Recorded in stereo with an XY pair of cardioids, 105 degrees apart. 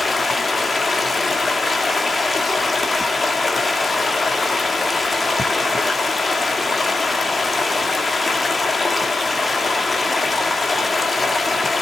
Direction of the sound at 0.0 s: 25° left.